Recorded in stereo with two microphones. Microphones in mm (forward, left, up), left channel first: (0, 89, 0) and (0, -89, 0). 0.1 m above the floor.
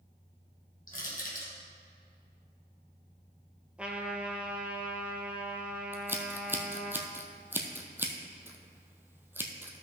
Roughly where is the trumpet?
Centre.